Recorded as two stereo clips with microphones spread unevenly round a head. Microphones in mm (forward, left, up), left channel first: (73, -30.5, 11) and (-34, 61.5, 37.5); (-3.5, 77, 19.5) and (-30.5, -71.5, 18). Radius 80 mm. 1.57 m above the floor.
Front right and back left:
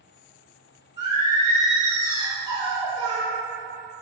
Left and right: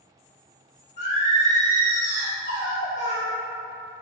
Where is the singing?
110° left, 1.5 m.